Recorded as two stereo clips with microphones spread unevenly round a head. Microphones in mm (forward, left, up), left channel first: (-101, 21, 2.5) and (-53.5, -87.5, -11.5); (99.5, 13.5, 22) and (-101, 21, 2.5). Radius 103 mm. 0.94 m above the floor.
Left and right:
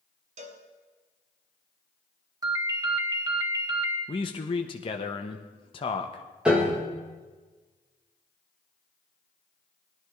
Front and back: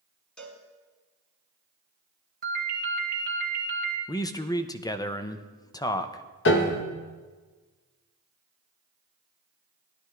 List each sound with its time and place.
0.4 s a cowbell: 85° right, 1.4 m
2.4 s a ringtone: 130° right, 2 m
4.1 s a man speaking: 70° left, 0.7 m
6.5 s a piano: 10° left, 1.4 m